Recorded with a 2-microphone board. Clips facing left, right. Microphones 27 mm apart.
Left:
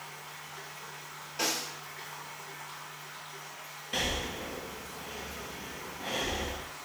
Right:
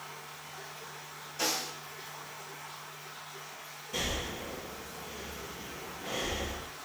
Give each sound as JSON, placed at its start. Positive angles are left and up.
{"t": 0.0, "sound": "running water", "side_deg": 70, "distance_m": 1.1}
{"t": 1.4, "sound": "a snare drum", "side_deg": 50, "distance_m": 1.7}
{"t": 3.9, "sound": "breathing", "side_deg": 55, "distance_m": 0.5}